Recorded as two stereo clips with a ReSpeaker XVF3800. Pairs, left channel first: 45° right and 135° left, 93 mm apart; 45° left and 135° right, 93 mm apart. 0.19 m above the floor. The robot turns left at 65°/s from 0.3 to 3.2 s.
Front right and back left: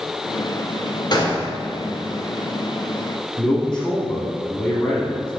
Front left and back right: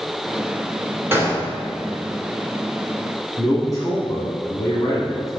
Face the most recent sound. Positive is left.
turn(degrees=25)